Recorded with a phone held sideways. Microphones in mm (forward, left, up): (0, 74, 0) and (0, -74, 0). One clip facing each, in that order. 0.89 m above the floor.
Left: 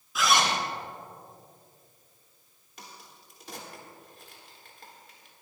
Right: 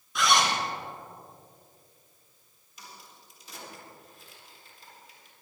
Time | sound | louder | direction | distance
0.1 | a zipper | even | centre (ahead or behind) | 3 m
2.8 | a crack | left 1 dB | 60° left (ahead or behind) | 3.5 m